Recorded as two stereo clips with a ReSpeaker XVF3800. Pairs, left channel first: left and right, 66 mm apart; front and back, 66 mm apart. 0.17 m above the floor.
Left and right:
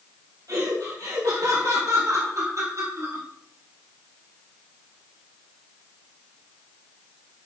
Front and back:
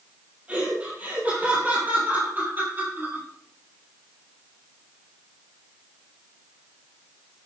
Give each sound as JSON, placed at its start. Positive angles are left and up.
{"t": 0.5, "sound": "laughter", "azimuth_deg": -110, "distance_m": 5.0}